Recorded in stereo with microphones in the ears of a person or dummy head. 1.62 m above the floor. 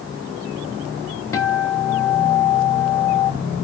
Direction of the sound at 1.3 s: 20° left (ahead or behind).